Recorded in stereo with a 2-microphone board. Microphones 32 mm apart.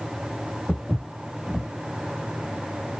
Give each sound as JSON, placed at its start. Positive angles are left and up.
{"t": 0.7, "sound": "footsteps", "side_deg": 20, "distance_m": 1.7}